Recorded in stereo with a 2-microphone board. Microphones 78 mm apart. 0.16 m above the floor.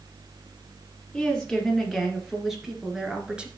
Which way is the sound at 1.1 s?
5° left (ahead or behind).